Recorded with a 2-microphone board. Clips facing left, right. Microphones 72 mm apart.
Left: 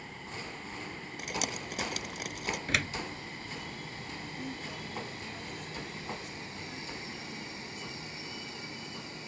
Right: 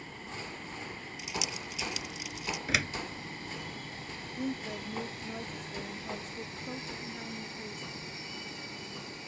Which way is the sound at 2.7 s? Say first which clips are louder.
Right 1 dB; centre (ahead or behind).